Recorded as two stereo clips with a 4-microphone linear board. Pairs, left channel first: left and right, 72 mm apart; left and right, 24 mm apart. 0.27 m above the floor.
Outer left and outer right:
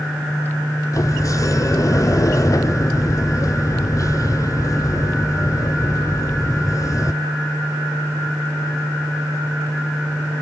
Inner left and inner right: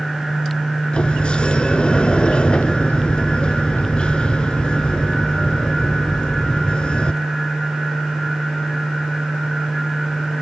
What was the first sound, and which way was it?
A sliding door, 50° left (ahead or behind).